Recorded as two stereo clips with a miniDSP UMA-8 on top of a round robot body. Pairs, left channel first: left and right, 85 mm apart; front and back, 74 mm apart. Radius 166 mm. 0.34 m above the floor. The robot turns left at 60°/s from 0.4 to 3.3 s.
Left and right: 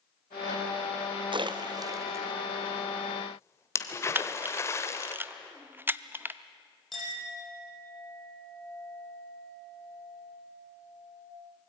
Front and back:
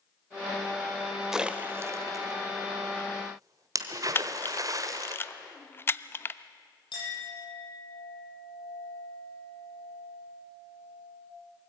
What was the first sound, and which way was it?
A splash, 95° right.